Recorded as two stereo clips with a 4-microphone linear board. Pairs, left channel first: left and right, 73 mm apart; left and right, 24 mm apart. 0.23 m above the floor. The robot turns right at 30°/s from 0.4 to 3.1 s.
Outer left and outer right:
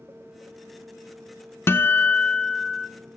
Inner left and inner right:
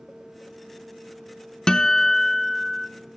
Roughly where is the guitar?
Behind left.